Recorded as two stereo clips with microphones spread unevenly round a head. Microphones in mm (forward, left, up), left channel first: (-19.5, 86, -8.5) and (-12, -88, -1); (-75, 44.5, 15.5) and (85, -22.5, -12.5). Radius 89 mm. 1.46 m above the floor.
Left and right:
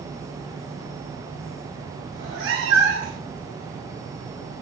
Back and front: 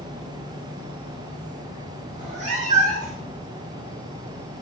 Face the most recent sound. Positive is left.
turn(degrees=-75)